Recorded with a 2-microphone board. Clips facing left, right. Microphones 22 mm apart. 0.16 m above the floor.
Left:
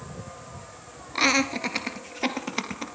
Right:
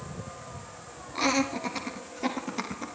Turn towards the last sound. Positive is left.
turn(degrees=50)  # may be behind; listen again after turning